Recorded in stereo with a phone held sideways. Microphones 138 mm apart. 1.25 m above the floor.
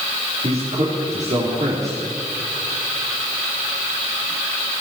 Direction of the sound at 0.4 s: 55° right (ahead or behind).